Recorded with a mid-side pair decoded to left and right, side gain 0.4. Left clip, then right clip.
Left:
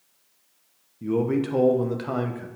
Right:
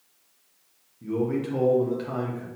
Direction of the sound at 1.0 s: 55° left.